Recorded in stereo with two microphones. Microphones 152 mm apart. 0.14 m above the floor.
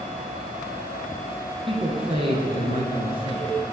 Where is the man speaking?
35° right (ahead or behind), 1.7 m.